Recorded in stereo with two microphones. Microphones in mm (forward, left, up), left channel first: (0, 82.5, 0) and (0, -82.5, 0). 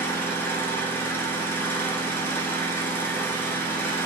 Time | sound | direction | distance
0.0 | an engine running | 15° left (ahead or behind) | 0.9 m